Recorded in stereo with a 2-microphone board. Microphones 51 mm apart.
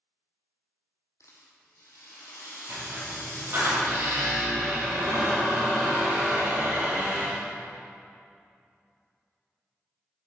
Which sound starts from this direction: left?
A rattle, at 1.2 s.